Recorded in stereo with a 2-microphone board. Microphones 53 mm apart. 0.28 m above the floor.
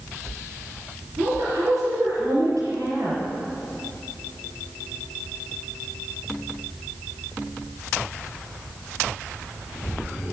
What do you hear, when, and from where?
1.2 s a woman speaking: 70° right (ahead or behind), 6 m